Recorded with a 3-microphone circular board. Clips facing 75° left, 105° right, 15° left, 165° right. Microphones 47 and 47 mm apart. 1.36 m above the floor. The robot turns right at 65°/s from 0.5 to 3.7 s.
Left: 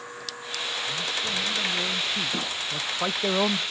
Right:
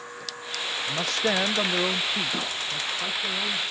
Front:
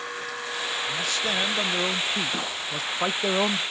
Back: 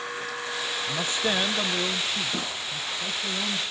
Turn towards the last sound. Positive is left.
turn(degrees=70)